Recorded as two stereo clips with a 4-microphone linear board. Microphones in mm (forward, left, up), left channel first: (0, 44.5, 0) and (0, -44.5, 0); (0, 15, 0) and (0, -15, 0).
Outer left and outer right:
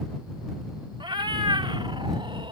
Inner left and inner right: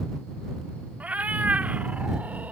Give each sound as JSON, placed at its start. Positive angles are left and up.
{"t": 1.0, "sound": "a cat meowing", "side_deg": -65}